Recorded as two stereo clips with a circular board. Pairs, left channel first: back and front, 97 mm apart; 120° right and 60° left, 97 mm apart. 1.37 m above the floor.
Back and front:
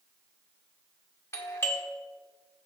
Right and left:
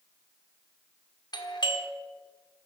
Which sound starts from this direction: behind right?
A doorbell, at 1.3 s.